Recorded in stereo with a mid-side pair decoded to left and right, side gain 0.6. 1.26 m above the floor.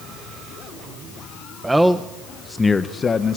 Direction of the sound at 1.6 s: 15° right.